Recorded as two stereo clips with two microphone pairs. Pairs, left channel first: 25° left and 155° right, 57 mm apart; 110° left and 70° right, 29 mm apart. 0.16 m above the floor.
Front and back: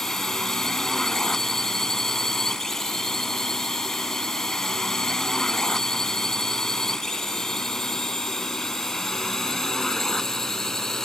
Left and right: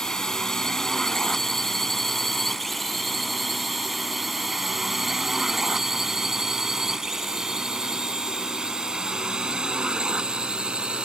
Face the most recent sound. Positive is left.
turn(degrees=-55)